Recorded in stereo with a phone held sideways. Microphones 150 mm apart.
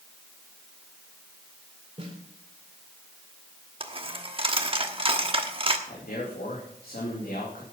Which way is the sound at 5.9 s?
85° left.